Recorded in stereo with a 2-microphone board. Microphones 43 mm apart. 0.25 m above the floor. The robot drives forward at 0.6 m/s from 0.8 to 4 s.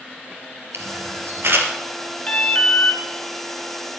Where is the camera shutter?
70° right (ahead or behind), 2.5 m; by 1.7 s 60° right (ahead or behind), 3 m.